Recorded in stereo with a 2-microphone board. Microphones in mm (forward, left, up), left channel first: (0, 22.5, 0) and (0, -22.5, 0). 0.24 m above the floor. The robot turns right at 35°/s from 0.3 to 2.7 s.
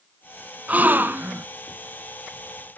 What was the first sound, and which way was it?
A gasp, 35° right (ahead or behind).